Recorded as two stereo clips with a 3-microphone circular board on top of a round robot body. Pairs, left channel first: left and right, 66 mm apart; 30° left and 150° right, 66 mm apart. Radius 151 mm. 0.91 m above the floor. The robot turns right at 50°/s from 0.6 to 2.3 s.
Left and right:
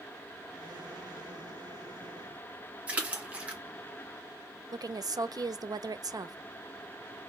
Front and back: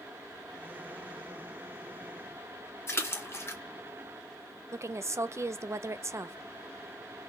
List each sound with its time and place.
2.9 s a splash: 20° right, 1.5 m
4.7 s a woman speaking: 105° right, 0.7 m